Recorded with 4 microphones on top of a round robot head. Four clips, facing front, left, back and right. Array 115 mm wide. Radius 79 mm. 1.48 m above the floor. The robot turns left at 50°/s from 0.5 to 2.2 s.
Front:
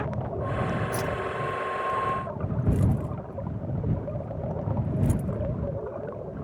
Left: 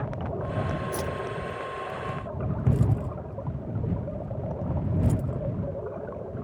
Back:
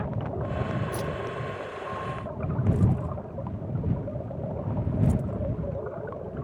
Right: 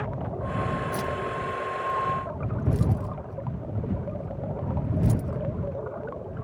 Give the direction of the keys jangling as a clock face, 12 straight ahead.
11 o'clock.